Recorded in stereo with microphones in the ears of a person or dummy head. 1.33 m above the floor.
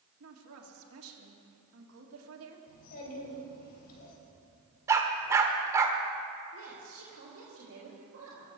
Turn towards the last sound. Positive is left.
turn(degrees=-70)  # may be behind; listen again after turning